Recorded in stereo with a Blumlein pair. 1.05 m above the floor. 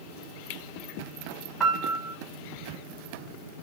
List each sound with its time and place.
1.6 s a piano: 15° right, 0.9 m